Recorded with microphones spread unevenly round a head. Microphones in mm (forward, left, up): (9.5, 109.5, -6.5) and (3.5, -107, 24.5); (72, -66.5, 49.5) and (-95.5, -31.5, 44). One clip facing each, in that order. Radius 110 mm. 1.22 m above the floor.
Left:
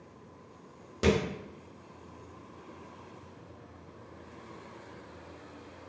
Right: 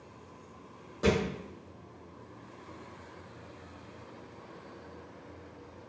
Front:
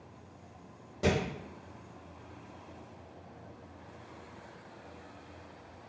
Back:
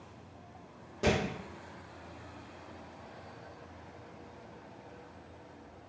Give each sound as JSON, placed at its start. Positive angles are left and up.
{"t": 1.0, "sound": "a thud", "azimuth_deg": 65, "distance_m": 0.9}